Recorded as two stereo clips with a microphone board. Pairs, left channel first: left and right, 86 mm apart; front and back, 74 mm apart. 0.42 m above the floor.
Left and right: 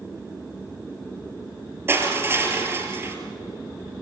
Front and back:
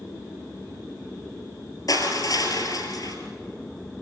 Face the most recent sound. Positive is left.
turn(degrees=-30)